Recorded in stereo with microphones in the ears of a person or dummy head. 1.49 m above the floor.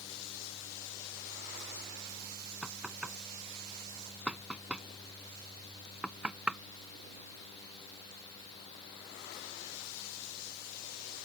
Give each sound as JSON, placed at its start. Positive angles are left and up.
{"t": 2.6, "sound": "knocking", "side_deg": -10}